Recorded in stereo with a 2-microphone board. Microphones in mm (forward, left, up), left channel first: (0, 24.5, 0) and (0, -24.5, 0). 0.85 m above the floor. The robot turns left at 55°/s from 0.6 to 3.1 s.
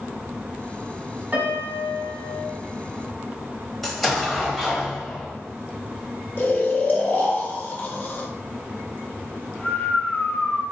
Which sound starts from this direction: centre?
An explosion, at 3.8 s.